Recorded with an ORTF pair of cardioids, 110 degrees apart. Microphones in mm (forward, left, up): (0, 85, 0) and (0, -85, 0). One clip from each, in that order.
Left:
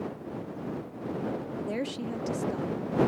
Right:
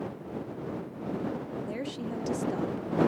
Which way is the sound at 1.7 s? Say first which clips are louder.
Left 2 dB; 25° left.